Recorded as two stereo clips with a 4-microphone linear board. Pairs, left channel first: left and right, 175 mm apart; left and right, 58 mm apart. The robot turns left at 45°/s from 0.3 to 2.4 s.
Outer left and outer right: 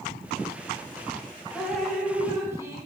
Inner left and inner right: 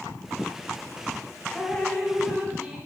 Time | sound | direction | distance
1.5 | dripping | 10° left | 1.1 m